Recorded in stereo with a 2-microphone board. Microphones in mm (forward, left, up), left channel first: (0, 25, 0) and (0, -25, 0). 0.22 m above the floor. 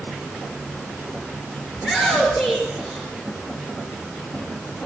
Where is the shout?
15° right (ahead or behind), 3 m.